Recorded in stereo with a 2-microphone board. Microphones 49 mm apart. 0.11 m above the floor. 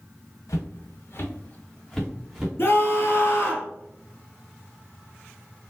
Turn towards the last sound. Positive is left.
turn(degrees=50)  # may be behind; listen again after turning